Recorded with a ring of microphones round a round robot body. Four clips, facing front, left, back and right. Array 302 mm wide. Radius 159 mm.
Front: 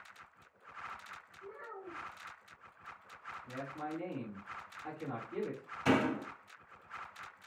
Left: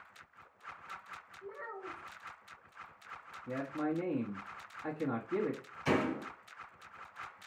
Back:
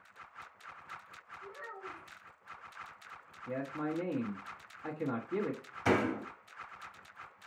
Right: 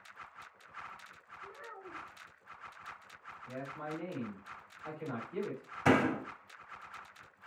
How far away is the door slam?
About 1.3 m.